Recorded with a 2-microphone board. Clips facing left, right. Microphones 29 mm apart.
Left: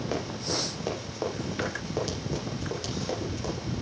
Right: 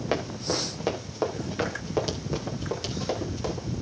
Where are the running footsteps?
25° right (ahead or behind), 3 m; by 3.7 s 10° right (ahead or behind), 7 m.